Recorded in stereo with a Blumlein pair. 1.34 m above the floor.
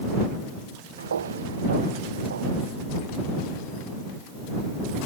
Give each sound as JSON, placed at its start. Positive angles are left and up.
{"t": 1.0, "sound": "footsteps", "azimuth_deg": -70}